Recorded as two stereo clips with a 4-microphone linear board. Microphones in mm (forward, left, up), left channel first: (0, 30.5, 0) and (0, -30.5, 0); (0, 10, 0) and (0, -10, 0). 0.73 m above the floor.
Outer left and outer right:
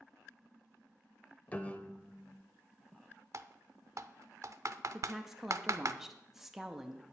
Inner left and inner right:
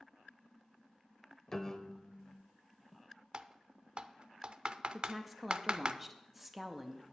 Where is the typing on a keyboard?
60° right (ahead or behind), 0.5 m.